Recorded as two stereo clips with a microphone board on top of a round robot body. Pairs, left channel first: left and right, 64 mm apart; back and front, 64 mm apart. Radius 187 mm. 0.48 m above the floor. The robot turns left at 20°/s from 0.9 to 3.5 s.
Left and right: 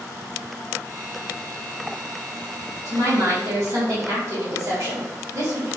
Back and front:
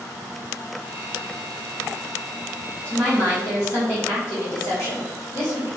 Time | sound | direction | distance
2.9 | a woman speaking | 120° right | 3.5 m